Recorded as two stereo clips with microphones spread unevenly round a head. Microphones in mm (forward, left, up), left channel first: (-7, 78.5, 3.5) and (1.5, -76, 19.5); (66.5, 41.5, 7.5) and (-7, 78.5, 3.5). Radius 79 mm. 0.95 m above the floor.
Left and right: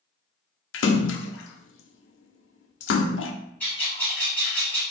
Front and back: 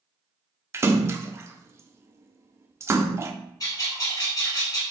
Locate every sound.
0.7 s a splash: 95° left, 0.5 m
3.6 s a bird: 10° left, 2 m